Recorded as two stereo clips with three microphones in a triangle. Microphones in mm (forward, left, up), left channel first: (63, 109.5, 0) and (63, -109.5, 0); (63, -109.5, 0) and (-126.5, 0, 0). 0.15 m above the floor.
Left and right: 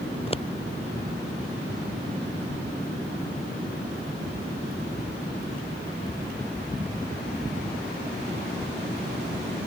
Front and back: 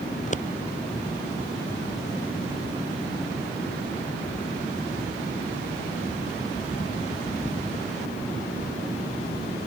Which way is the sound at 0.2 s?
25° left.